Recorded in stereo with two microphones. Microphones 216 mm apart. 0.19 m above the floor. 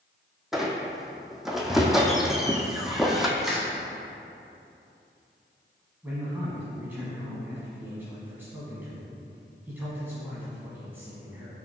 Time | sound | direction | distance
0.5 | a squeak | centre (ahead or behind) | 0.8 m
3.4 | crushing | centre (ahead or behind) | 1.7 m
6.0 | a man speaking | 10° right (ahead or behind) | 1.3 m